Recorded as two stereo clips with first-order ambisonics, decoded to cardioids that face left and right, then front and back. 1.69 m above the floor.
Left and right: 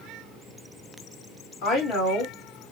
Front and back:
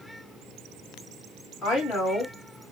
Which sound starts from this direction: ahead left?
A woman speaking, at 1.6 s.